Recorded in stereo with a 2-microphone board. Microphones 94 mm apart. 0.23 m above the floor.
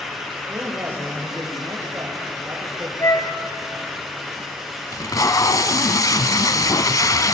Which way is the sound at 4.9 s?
40° left (ahead or behind).